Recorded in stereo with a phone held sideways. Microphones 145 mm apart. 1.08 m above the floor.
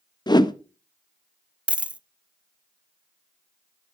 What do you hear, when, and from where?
0.3 s a whoosh: 30° left (ahead or behind), 0.7 m
1.7 s a dropped coin: 10° right (ahead or behind), 0.5 m